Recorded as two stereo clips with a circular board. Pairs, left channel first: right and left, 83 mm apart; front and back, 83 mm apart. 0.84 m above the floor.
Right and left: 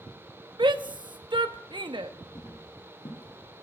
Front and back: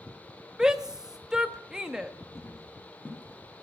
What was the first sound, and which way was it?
A shout, 100° left.